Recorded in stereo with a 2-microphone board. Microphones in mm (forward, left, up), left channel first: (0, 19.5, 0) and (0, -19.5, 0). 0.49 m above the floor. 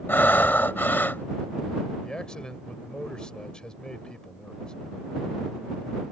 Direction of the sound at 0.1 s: 55° left (ahead or behind).